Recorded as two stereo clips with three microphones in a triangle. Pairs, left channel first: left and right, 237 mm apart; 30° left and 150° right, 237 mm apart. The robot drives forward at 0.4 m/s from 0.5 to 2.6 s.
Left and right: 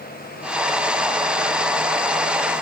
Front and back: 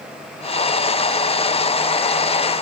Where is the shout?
I don't hear a shout.